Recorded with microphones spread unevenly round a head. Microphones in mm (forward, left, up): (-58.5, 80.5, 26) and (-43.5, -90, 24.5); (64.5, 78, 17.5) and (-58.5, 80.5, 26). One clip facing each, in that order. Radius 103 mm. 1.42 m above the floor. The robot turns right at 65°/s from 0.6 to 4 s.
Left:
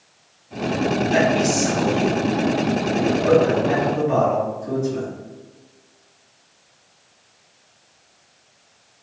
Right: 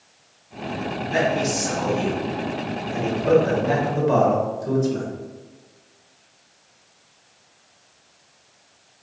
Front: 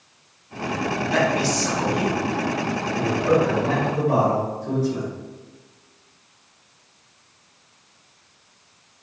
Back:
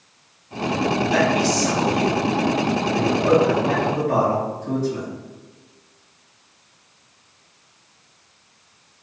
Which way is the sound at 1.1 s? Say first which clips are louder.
Left 1 dB, even; 90° left.